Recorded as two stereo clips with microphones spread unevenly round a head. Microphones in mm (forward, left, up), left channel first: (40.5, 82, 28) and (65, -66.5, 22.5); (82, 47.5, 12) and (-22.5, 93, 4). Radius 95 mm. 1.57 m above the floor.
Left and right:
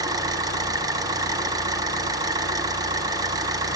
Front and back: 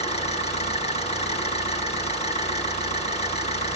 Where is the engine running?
15° right, 3.5 m.